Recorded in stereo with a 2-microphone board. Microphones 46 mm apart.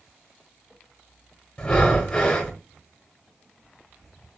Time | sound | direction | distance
1.6 | breathing | 20° left (ahead or behind) | 1.0 m